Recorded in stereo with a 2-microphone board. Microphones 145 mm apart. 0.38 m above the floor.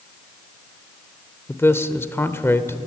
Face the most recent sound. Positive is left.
turn(degrees=15)  # may be behind; listen again after turning